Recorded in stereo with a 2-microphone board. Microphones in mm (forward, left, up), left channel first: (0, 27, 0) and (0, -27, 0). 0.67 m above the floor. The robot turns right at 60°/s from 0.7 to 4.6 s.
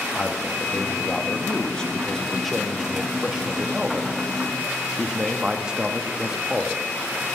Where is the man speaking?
20° left (ahead or behind), 0.6 m; by 6.8 s 15° right (ahead or behind), 0.6 m.